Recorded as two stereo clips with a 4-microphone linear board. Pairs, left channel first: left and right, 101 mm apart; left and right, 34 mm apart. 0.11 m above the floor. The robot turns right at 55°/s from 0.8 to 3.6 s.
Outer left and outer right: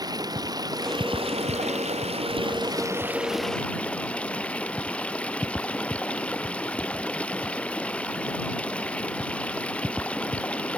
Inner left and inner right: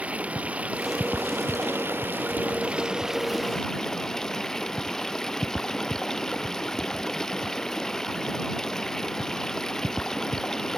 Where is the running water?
145° right; by 10.8 s 10° left.